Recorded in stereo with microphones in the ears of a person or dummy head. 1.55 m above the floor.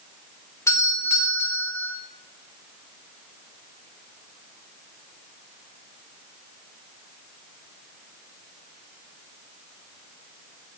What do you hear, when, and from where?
0.7 s a doorbell: 20° left (ahead or behind), 1.2 m